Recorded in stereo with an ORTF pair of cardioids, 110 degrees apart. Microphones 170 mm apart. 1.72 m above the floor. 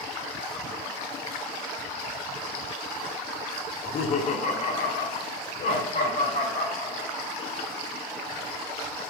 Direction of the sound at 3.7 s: 35° left.